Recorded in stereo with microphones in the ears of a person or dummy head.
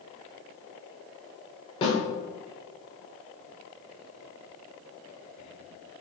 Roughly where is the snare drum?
Left.